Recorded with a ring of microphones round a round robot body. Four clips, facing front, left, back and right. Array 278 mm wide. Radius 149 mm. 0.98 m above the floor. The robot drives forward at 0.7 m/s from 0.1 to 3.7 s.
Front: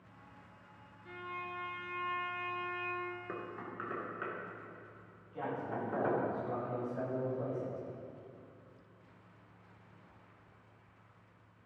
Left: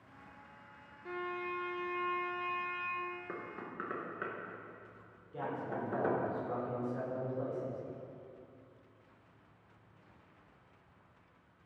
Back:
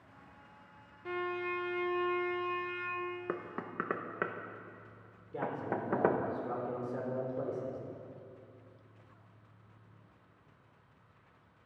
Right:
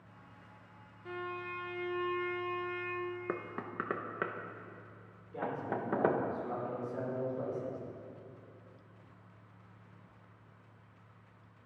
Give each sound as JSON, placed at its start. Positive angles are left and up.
{"t": 1.1, "sound": "a violin", "azimuth_deg": 175, "distance_m": 0.5}
{"t": 3.3, "sound": "knocking", "azimuth_deg": -130, "distance_m": 0.8}
{"t": 5.3, "sound": "a man speaking", "azimuth_deg": -175, "distance_m": 3.5}